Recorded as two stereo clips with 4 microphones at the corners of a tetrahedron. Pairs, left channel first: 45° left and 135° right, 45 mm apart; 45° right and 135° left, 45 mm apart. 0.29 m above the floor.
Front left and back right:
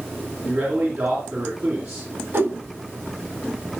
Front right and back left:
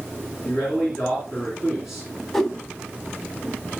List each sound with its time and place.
0.5 s a man speaking: 140° right, 3 m
2.3 s a whoosh: 125° right, 1.1 m